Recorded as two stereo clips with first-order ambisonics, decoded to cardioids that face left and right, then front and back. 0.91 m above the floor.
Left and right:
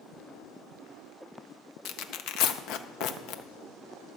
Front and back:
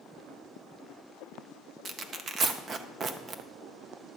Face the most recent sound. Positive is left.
turn(degrees=115)